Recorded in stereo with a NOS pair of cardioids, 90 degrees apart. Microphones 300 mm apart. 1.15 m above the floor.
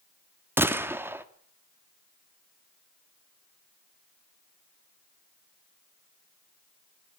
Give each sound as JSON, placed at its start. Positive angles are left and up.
{"t": 0.6, "sound": "a gunshot", "azimuth_deg": -5, "distance_m": 1.7}